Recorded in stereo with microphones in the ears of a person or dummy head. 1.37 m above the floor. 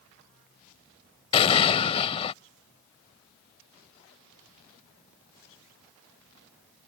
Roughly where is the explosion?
Left.